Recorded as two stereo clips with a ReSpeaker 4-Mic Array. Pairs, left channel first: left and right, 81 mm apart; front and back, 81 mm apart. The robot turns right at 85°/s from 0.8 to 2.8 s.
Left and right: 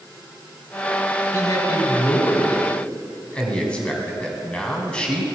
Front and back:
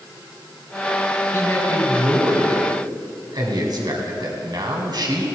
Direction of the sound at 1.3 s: 40° left.